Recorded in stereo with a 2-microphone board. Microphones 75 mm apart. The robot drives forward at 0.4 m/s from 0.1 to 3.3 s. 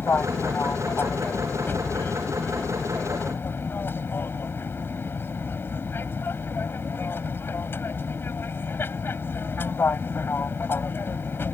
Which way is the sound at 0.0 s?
30° left (ahead or behind).